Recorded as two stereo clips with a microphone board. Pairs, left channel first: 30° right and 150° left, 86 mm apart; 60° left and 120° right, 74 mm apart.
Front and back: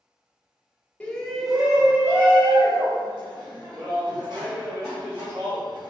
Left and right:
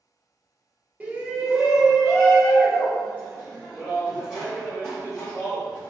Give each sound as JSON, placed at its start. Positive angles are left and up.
{"t": 1.0, "sound": "a shout", "azimuth_deg": -85, "distance_m": 0.9}